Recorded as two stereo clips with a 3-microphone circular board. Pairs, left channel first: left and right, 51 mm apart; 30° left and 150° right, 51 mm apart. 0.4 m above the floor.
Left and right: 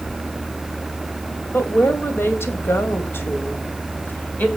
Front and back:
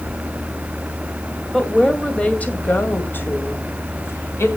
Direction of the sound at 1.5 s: 105° left.